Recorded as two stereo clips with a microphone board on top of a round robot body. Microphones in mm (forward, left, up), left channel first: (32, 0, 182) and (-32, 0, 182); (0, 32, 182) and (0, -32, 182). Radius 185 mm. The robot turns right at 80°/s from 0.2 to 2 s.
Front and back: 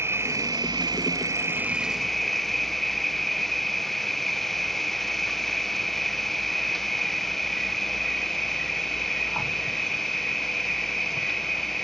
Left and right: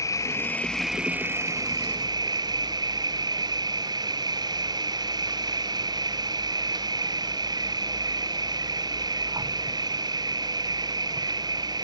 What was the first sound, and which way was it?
An insect, 125° left.